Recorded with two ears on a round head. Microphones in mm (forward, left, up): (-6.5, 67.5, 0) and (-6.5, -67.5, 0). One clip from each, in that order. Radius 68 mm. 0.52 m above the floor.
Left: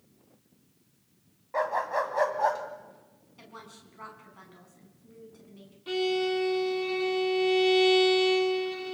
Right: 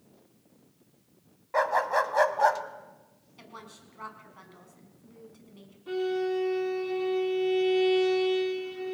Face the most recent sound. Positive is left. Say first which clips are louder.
# left 2 dB
turn(degrees=80)